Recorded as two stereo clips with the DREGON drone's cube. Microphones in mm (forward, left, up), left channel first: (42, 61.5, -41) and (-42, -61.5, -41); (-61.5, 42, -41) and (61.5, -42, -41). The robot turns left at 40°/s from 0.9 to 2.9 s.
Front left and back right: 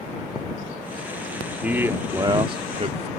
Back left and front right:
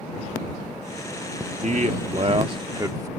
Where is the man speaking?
45° right; by 3.1 s 95° right.